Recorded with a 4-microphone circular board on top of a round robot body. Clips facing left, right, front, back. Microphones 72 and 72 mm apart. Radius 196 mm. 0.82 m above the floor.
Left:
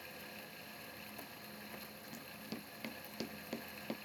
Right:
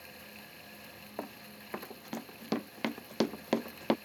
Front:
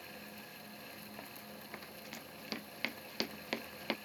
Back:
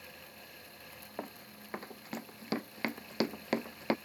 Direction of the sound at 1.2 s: 125° right.